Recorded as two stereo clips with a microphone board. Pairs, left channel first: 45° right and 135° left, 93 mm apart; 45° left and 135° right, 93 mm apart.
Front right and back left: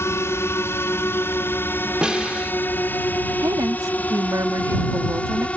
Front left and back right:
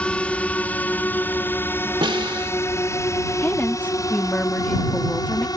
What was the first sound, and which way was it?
A drone, 20° right.